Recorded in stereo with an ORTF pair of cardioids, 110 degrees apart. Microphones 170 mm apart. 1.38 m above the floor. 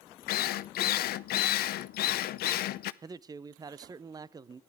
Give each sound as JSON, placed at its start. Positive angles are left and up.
{"t": 0.3, "sound": "a drill", "azimuth_deg": 65, "distance_m": 0.6}
{"t": 3.0, "sound": "a man speaking", "azimuth_deg": -25, "distance_m": 0.6}